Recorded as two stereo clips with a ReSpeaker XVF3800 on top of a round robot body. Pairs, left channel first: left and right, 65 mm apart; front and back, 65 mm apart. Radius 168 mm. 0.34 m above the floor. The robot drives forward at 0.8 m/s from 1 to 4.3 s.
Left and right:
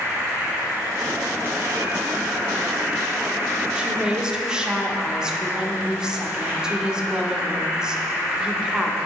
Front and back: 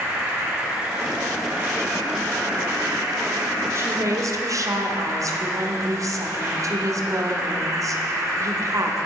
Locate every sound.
0.0 s an insect: 110° right, 3.5 m; by 9.1 s 140° right, 5 m
3.8 s a woman speaking: 160° right, 1.1 m; by 9.0 s 165° right, 1.4 m